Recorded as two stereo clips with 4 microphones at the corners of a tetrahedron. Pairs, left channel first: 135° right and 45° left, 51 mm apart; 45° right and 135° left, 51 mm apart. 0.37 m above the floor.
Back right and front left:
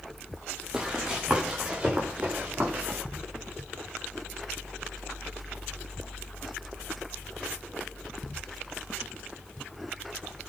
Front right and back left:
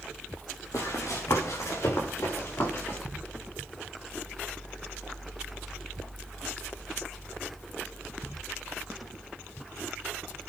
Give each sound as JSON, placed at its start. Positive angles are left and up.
{"t": 0.7, "sound": "running footsteps", "azimuth_deg": -30, "distance_m": 6.0}